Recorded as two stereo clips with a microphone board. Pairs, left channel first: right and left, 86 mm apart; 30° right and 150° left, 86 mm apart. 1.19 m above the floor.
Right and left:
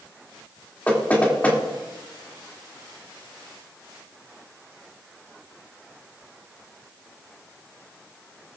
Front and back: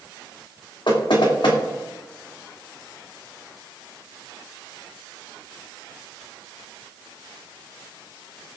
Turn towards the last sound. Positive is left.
turn(degrees=-20)